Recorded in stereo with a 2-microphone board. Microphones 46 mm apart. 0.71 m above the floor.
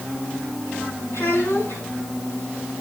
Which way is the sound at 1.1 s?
75° left (ahead or behind).